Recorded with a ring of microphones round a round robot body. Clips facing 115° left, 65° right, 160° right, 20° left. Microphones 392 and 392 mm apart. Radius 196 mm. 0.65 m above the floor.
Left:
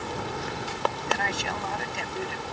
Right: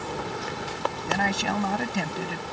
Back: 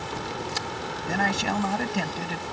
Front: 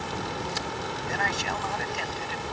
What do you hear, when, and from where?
1.1 s a man speaking: 110° right